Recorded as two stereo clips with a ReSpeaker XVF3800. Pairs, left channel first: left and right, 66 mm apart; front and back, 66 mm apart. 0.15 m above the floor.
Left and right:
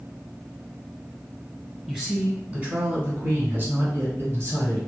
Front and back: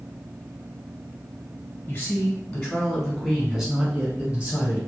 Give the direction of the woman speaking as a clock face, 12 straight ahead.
12 o'clock.